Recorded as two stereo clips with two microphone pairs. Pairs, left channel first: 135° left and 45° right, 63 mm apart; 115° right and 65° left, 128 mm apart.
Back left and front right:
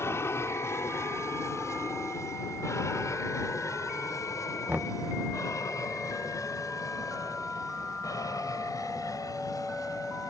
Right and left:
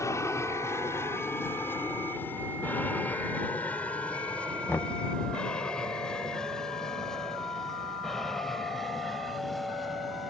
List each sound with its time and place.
0.0 s an aircraft: straight behind; by 10.3 s 155° left
4.7 s knocking: 50° right